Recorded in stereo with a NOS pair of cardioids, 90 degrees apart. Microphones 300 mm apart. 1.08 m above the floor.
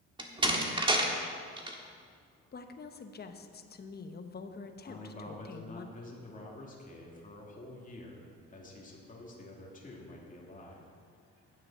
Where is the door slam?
15° right, 1.5 m.